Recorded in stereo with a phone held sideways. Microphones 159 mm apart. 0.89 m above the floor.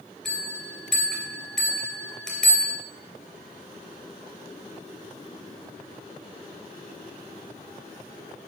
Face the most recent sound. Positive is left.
turn(degrees=5)  # may be behind; listen again after turning